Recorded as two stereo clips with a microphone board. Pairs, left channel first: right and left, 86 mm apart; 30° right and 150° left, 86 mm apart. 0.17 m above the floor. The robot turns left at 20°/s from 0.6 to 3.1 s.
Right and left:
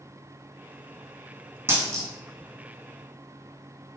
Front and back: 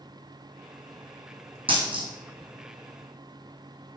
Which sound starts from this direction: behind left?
A dropped coin, at 1.7 s.